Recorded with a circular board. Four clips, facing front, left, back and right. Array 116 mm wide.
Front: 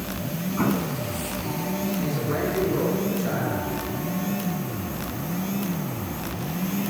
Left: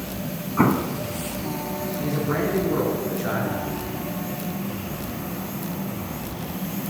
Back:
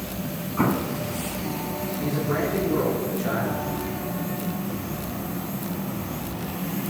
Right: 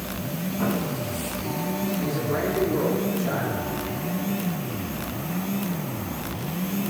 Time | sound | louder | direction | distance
0.6 | an explosion | left 7 dB, back 2 dB | 100° left | 0.7 m
2.0 | a man speaking | left 5 dB, back 1 dB | 100° left | 4 m